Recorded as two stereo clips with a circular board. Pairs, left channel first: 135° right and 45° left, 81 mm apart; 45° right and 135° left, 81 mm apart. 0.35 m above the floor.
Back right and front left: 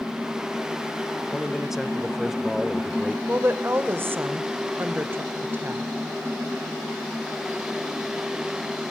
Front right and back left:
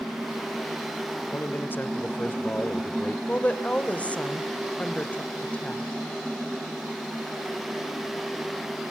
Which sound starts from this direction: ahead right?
A man speaking, at 1.3 s.